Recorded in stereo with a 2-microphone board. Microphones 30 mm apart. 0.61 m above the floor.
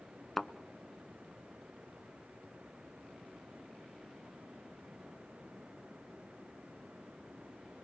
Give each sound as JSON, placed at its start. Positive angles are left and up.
{"t": 0.4, "sound": "a thud", "side_deg": 10, "distance_m": 0.6}